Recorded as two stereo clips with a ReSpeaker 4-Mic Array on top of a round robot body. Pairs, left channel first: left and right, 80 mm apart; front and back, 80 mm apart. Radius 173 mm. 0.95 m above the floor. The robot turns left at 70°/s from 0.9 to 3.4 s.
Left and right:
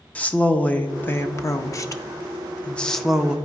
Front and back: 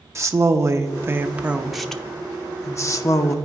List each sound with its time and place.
0.1 s a woman speaking: 150° left, 0.8 m; by 3.4 s 20° right, 0.8 m